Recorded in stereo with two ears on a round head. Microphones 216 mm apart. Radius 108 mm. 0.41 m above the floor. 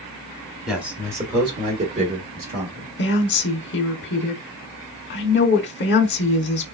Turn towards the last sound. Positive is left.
turn(degrees=45)  # may be behind; listen again after turning